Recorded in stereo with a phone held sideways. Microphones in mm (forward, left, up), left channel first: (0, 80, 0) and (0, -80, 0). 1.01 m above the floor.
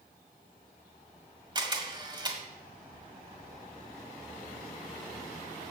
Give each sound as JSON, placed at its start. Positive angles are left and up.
{"t": 1.6, "sound": "a camera shutter", "side_deg": -25, "distance_m": 1.3}